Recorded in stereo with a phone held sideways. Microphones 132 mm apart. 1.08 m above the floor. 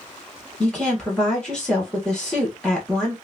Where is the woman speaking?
5° left (ahead or behind), 1.4 m.